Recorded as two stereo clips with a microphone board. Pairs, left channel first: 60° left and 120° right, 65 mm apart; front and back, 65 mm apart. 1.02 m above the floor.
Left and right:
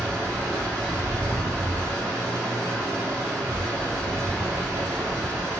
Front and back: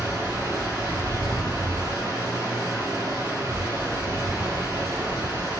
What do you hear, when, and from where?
0.0 s running water: 160° right, 1.9 m